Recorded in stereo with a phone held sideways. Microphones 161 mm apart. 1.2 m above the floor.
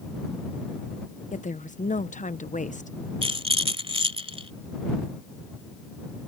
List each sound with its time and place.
1.3 s a woman speaking: 50° left (ahead or behind)
3.2 s a rattle: 35° right (ahead or behind)